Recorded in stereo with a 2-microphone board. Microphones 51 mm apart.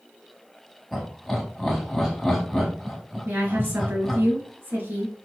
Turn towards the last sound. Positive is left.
turn(degrees=-45)  # may be behind; listen again after turning